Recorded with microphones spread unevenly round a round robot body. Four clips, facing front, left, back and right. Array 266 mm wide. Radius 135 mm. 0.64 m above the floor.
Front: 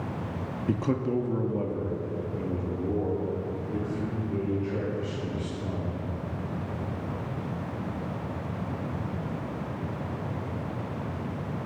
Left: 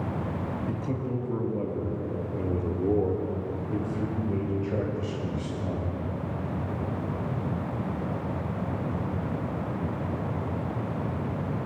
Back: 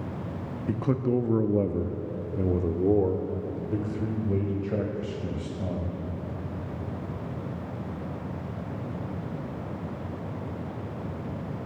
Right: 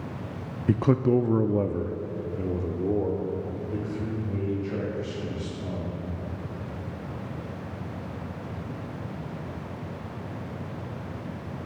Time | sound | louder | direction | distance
0.7 | a man speaking | right 15 dB, back 1 dB | 65° right | 0.8 m